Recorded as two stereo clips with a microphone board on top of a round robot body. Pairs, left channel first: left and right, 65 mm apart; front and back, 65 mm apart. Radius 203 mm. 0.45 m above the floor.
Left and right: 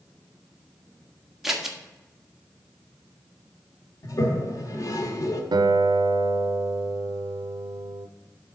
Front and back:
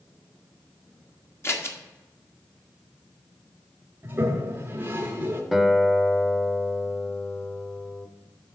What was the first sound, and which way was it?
Scissors, 5° right.